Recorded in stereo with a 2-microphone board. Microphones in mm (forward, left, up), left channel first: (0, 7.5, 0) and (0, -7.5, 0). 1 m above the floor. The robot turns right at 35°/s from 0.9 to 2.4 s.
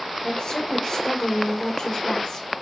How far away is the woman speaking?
About 0.8 m.